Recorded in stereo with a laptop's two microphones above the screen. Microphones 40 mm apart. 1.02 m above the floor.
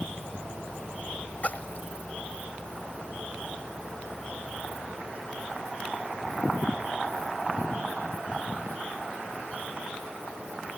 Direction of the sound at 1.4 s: 45° left (ahead or behind).